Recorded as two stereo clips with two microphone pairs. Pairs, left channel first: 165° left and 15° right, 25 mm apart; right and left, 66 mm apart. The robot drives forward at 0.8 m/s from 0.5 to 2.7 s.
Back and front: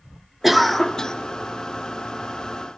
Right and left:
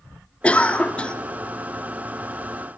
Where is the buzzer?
I don't hear a buzzer.